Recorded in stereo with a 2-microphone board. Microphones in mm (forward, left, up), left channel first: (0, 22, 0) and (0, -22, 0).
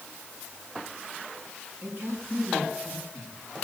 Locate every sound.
1.8 s a woman speaking: 50° right (ahead or behind), 8 m